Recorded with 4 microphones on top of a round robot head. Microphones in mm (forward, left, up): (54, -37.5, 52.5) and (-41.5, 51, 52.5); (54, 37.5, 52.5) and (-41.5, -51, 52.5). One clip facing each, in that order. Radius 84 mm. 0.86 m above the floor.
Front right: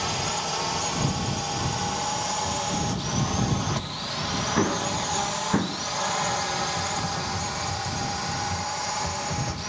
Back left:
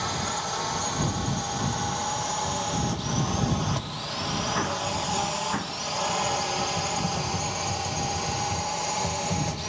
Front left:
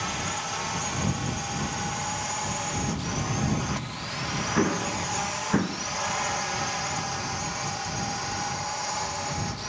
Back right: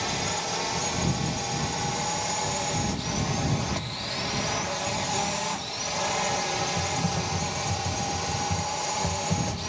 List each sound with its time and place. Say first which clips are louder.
0.0 s a drone: front right 1 dB, back right 2 dB; 115° right; by 9.7 s straight behind
4.5 s an explosion: front right 3 dB, front left 4 dB; 15° left
6.8 s typing on a keyboard: back left 1 dB, back right 3 dB; 150° right